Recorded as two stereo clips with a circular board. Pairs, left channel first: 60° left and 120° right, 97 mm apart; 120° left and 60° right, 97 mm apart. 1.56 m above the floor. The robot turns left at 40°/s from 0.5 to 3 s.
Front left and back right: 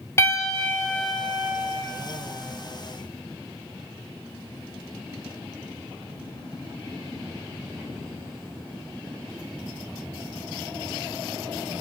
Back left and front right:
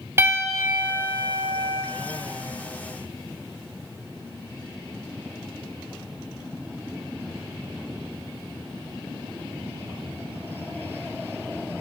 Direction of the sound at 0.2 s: Straight ahead.